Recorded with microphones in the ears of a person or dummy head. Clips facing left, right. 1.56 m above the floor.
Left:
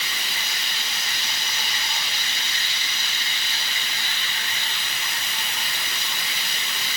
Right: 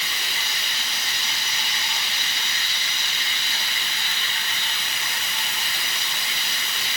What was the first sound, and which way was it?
Only background noise.